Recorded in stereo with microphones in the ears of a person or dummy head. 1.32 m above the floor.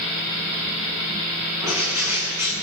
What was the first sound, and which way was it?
A bird, 15° right (ahead or behind).